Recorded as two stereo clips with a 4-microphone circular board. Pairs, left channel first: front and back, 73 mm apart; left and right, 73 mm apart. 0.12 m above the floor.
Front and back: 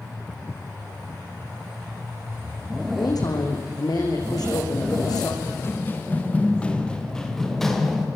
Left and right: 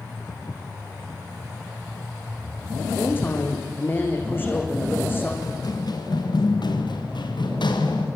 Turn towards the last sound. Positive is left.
turn(degrees=90)